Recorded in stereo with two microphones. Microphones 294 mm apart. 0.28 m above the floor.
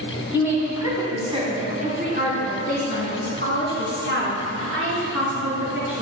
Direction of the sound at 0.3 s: 5° right (ahead or behind).